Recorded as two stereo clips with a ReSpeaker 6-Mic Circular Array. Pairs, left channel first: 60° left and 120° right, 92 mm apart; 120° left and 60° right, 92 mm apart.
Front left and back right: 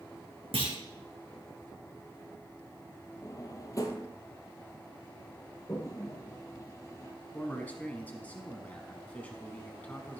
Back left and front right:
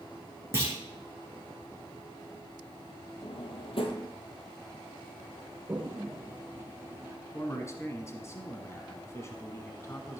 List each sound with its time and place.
0.5 s a clunk: 120° right, 3 m
3.2 s a drawer: 110° left, 1.5 m
5.7 s a toilet flushing: 5° left, 1.3 m
7.3 s a man speaking: 115° left, 1.3 m